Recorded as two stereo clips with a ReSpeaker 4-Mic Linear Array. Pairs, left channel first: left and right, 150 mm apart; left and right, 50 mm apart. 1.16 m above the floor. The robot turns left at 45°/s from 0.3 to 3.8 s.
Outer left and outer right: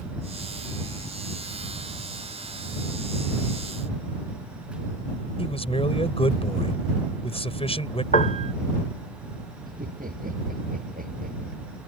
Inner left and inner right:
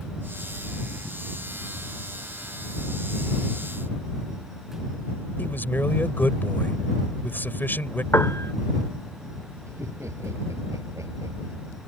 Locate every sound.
5.4 s a man speaking: 40° left (ahead or behind)
8.1 s a piano: 50° left (ahead or behind)
9.7 s laughter: 70° right (ahead or behind)